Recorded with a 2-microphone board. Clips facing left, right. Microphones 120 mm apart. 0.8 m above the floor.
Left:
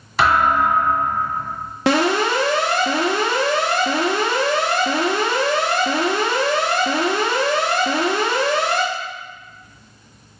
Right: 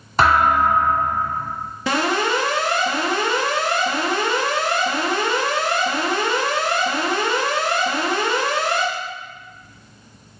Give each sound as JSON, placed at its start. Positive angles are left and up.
{"t": 0.2, "sound": "a thud", "side_deg": -45, "distance_m": 1.2}
{"t": 1.9, "sound": "an alarm", "side_deg": 90, "distance_m": 0.7}